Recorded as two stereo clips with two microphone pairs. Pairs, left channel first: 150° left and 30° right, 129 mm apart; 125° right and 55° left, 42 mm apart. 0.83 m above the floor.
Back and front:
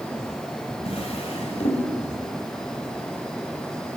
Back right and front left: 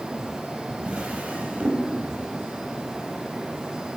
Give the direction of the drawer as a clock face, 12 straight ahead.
8 o'clock.